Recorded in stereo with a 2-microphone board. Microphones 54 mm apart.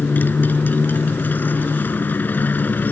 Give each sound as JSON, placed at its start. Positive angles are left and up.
{"t": 0.0, "sound": "a motorcycle", "side_deg": 35}